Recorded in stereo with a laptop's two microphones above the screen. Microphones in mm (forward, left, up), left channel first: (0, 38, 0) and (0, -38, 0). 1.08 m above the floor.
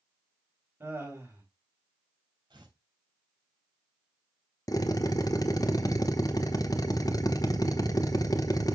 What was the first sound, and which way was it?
Laughter, 30° right (ahead or behind).